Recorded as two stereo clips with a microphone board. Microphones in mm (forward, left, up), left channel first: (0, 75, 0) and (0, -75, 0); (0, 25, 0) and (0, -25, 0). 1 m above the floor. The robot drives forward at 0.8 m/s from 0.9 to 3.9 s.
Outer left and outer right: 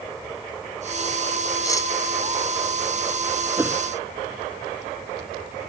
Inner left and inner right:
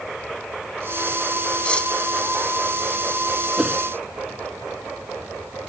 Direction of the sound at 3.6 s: 15° right (ahead or behind).